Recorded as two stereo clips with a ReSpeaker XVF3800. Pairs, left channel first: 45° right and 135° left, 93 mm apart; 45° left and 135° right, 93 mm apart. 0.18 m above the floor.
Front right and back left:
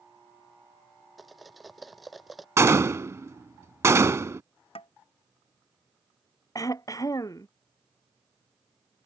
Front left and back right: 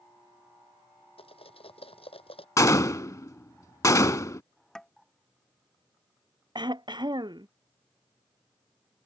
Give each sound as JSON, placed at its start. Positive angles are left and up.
{"t": 1.2, "sound": "cutlery clinking", "azimuth_deg": 45}
{"t": 2.6, "sound": "a gunshot", "azimuth_deg": 85}
{"t": 4.8, "sound": "tapping", "azimuth_deg": -40}
{"t": 6.5, "sound": "throat clearing", "azimuth_deg": -95}